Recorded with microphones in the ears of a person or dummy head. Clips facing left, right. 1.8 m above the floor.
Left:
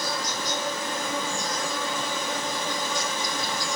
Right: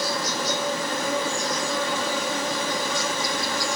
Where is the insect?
55° right (ahead or behind), 0.7 m.